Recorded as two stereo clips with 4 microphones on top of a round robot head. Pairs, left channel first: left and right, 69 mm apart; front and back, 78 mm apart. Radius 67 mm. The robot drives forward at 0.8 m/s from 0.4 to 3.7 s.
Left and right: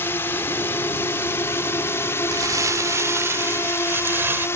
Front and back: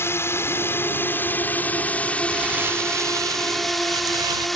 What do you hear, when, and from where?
0.0 s a drone: 40° left; by 4.6 s 85° left
2.3 s crumpling: 110° right; by 4.5 s 145° right